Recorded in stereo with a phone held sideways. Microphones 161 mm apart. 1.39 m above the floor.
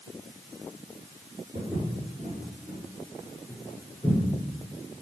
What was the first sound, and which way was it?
Footsteps, 20° right (ahead or behind).